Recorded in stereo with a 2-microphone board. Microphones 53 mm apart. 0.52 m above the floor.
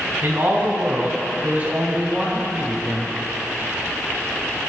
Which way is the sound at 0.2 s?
45° right (ahead or behind).